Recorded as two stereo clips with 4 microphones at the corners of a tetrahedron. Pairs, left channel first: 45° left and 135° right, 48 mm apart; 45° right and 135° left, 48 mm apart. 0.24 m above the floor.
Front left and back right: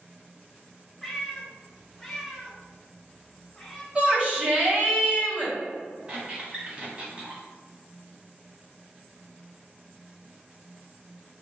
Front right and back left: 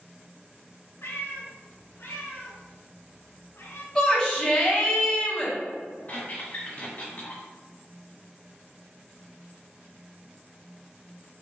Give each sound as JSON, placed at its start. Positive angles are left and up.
{"t": 1.0, "sound": "a cat meowing", "azimuth_deg": -35, "distance_m": 0.8}
{"t": 4.0, "sound": "a shout", "azimuth_deg": -125, "distance_m": 1.4}
{"t": 6.1, "sound": "a squeak", "azimuth_deg": -80, "distance_m": 1.3}